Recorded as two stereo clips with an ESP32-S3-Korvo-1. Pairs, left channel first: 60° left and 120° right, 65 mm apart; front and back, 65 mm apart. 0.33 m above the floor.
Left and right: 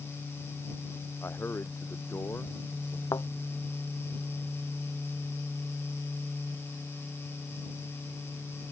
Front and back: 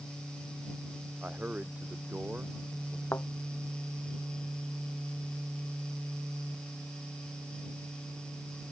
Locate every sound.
1.2 s a man speaking: 115° left
3.1 s a thud: 50° left